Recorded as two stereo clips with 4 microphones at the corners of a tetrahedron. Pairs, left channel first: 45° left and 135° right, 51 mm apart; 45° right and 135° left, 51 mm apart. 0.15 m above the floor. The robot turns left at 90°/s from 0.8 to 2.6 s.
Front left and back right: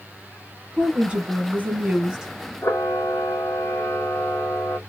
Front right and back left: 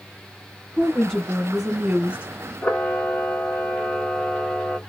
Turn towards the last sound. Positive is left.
turn(degrees=10)